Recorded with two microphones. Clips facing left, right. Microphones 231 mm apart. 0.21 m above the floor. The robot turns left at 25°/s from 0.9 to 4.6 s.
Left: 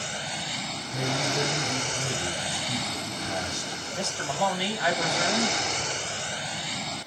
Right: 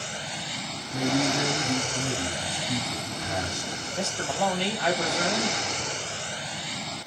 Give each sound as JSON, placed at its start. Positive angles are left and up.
{"t": 0.9, "sound": "a man speaking", "side_deg": 0, "distance_m": 1.0}
{"t": 3.9, "sound": "a man speaking", "side_deg": 0, "distance_m": 1.0}